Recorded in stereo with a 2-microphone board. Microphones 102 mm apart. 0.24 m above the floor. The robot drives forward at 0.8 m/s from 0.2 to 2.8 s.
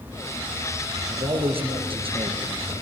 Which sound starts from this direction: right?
A man speaking, at 1.1 s.